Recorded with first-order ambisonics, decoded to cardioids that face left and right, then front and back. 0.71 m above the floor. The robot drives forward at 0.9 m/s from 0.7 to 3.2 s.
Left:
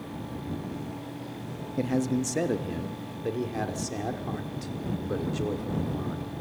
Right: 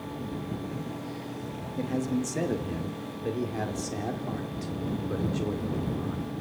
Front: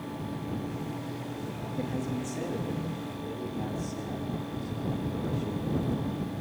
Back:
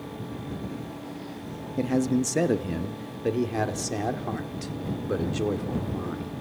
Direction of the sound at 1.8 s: 145° left.